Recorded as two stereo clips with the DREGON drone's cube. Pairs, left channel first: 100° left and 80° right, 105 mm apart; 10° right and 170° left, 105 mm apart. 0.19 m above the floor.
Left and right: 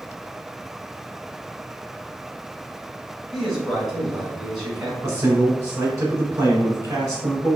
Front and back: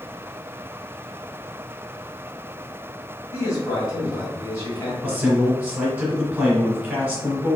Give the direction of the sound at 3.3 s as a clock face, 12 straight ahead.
12 o'clock.